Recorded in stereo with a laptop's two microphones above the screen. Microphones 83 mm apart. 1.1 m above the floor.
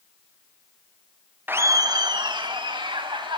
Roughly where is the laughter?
Right.